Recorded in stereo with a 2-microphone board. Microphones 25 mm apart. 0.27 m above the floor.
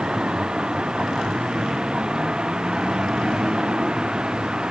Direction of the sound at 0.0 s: 35° right (ahead or behind).